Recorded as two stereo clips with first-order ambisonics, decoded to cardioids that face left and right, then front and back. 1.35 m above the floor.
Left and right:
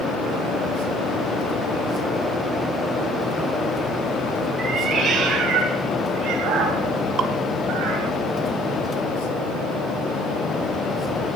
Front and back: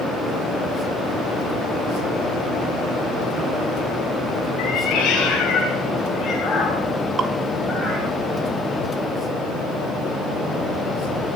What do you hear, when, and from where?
4.6 s a cat meowing: 35° right, 3.5 m; by 8.1 s 85° right, 4 m
7.2 s dripping: 125° right, 1.1 m